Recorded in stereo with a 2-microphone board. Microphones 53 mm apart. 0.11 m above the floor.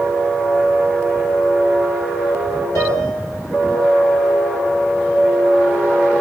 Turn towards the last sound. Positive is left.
turn(degrees=60)  # may be behind; listen again after turning